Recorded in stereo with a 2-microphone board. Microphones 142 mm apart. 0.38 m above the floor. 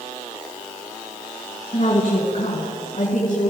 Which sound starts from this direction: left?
A woman speaking, at 1.7 s.